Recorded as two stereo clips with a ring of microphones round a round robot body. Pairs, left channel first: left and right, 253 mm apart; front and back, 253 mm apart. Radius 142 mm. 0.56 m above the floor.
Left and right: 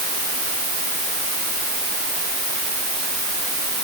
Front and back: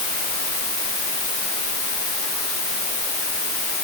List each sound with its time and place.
Only background noise.